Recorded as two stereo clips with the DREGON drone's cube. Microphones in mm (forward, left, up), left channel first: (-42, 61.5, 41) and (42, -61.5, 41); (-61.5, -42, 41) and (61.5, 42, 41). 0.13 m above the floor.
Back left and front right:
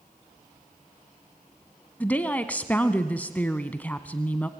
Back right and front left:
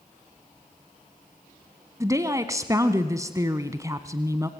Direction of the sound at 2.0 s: 60° left.